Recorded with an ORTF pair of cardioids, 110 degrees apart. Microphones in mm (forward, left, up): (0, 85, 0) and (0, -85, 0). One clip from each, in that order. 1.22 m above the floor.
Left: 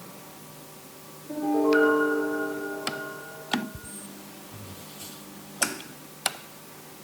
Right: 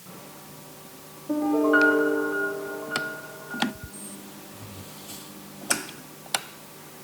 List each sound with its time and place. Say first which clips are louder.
1.3 s a piano: right 2 dB; 60° right, 3 m